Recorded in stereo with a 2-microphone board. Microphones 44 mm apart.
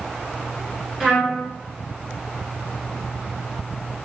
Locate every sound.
1.0 s a trumpet: 15° right (ahead or behind), 1.3 m